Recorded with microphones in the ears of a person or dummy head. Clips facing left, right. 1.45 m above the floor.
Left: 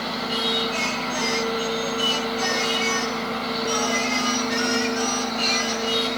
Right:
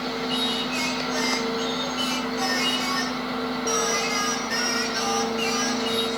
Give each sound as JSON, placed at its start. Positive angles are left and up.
{"t": 0.3, "sound": "singing", "side_deg": -40, "distance_m": 5.5}